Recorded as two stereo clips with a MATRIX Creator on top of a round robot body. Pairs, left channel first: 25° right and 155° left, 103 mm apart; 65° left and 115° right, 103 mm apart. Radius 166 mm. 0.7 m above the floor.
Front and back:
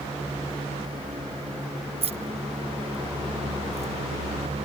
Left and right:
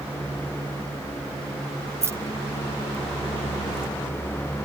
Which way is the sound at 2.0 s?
175° right.